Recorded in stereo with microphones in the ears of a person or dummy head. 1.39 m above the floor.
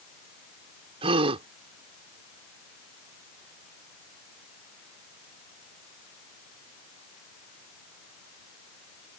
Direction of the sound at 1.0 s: 30° right (ahead or behind).